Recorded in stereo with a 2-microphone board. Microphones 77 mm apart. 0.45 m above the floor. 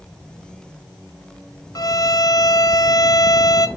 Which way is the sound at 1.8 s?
50° left (ahead or behind).